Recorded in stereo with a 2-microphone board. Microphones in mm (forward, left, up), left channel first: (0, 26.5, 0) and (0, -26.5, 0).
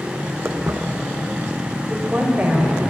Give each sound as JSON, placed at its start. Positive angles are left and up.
{"t": 0.5, "sound": "footsteps", "side_deg": -55, "distance_m": 0.7}
{"t": 1.9, "sound": "a woman speaking", "side_deg": -25, "distance_m": 1.1}